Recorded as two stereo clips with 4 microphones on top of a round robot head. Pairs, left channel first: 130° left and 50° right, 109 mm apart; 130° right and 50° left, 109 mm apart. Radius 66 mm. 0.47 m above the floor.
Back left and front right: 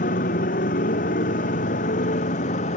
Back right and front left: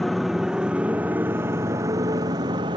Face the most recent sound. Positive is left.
turn(degrees=105)